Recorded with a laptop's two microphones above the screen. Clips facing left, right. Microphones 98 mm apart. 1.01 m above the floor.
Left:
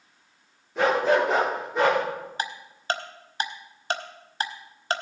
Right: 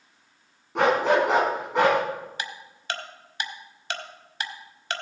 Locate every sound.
0.8 s a dog barking: 70° right (ahead or behind), 3.5 m; by 2.0 s 75° right (ahead or behind), 3 m
2.4 s ticking: 40° left (ahead or behind), 1.0 m